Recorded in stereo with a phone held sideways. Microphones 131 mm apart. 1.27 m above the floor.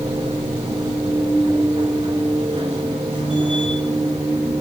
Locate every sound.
0.0 s a machine running: 50° right (ahead or behind), 4 m